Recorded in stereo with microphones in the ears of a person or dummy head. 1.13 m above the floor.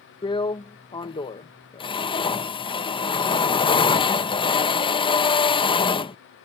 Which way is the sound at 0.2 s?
20° left (ahead or behind).